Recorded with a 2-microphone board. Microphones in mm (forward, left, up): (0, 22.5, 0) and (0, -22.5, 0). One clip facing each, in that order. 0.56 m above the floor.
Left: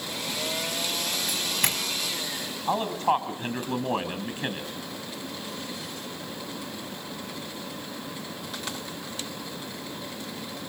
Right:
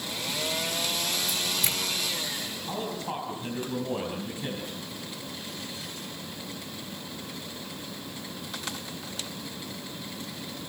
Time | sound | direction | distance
1.3 | a doorbell | 55° left (ahead or behind) | 5.5 m
2.7 | a man speaking | 45° left (ahead or behind) | 5 m